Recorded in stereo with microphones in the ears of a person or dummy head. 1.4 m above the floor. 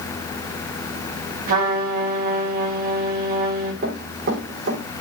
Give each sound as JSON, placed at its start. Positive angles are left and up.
{"t": 1.5, "sound": "a trumpet", "side_deg": -45, "distance_m": 2.5}
{"t": 3.8, "sound": "running footsteps", "side_deg": -60, "distance_m": 5.5}